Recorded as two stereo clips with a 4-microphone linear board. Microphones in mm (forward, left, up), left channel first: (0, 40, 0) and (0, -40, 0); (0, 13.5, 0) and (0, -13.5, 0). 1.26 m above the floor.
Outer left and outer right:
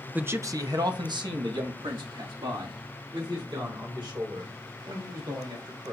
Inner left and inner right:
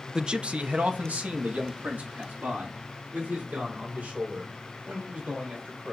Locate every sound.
0.1 s a man speaking: 20° right (ahead or behind), 0.6 m; by 5.9 s 90° right, 5.5 m